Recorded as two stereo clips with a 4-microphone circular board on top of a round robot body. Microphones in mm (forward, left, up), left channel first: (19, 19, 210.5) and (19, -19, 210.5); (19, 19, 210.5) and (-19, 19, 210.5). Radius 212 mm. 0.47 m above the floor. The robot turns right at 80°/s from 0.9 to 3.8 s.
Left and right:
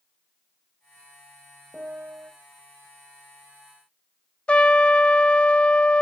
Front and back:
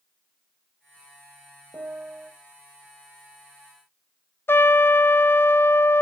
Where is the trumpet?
25° left, 0.5 m.